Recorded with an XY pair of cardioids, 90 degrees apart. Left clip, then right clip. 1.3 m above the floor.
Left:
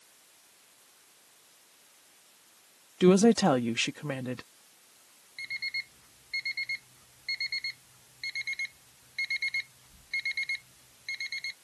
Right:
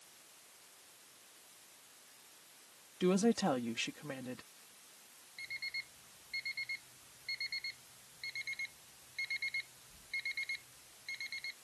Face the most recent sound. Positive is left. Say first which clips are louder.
# left 8 dB
turn(degrees=55)